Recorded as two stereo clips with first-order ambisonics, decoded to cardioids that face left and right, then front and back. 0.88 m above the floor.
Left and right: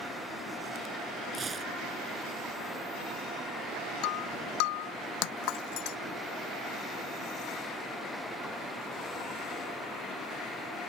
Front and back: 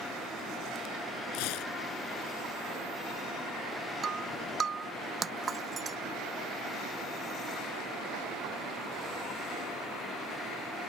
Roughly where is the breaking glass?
Left.